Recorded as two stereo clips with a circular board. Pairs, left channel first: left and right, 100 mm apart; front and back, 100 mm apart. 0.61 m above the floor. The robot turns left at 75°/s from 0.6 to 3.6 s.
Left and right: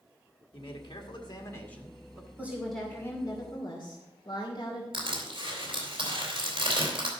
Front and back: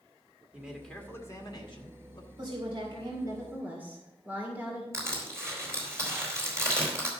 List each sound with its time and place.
0.5 s a man speaking: 105° left, 2.0 m; by 2.3 s 25° right, 2.0 m
2.4 s a woman speaking: 160° right, 2.5 m; by 4.8 s 110° left, 2.5 m
4.9 s crushing: 120° right, 3.5 m